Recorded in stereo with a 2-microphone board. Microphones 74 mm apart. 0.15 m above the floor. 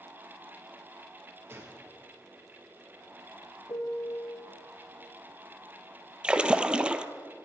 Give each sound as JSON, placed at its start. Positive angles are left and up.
{"t": 1.5, "sound": "a gunshot", "side_deg": -35, "distance_m": 2.5}
{"t": 3.7, "sound": "a piano", "side_deg": 60, "distance_m": 1.3}
{"t": 6.2, "sound": "a splash", "side_deg": -15, "distance_m": 0.7}